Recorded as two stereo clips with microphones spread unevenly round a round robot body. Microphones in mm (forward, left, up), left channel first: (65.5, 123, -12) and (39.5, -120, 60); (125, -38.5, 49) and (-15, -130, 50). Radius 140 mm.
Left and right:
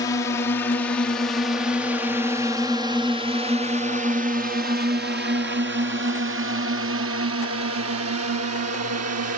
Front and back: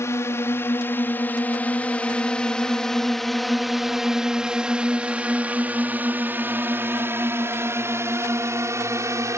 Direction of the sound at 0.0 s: 95° left.